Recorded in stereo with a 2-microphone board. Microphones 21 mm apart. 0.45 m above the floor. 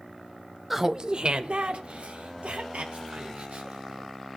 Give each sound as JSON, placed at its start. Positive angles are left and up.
{"t": 0.7, "sound": "laughter", "side_deg": -10, "distance_m": 0.9}